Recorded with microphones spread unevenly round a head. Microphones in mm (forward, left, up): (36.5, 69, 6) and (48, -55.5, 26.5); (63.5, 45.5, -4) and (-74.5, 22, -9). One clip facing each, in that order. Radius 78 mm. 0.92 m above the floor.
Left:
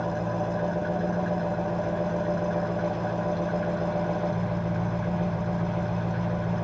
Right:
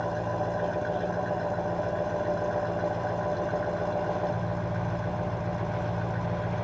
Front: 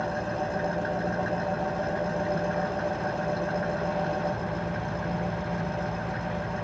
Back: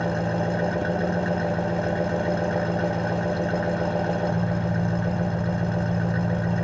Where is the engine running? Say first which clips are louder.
Left 1 dB, back 4 dB; 170° right, 0.8 m.